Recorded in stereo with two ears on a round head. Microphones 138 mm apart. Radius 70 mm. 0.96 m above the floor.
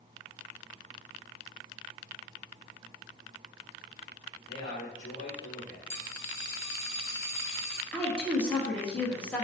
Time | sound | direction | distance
4.5 | a man speaking | 50° left (ahead or behind) | 1.5 m
5.9 | a dropped coin | 40° left (ahead or behind) | 0.9 m
7.9 | a woman speaking | 10° left (ahead or behind) | 1.0 m